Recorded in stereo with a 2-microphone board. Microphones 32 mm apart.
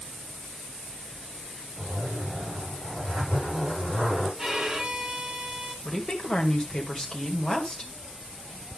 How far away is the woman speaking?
About 1.8 m.